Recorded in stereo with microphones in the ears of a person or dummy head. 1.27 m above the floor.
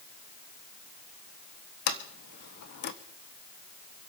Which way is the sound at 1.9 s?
55° left (ahead or behind).